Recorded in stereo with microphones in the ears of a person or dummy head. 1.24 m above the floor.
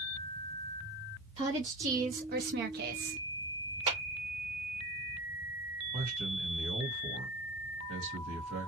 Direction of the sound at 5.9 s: 70° right (ahead or behind).